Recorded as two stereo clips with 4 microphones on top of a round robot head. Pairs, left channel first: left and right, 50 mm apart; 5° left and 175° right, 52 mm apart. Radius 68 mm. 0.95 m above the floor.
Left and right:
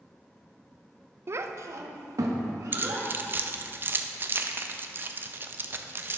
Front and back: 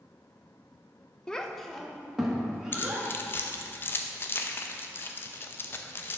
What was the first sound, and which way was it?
A child speaking, 70° right.